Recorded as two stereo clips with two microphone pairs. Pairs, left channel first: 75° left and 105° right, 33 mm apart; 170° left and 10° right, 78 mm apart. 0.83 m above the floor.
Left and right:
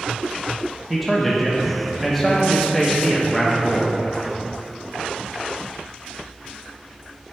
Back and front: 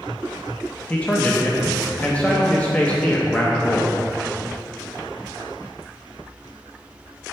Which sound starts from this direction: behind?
A man speaking, at 0.9 s.